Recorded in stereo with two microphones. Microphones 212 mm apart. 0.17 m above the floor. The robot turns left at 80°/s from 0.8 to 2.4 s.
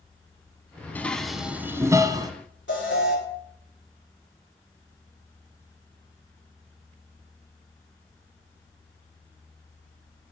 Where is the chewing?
No chewing in this recording.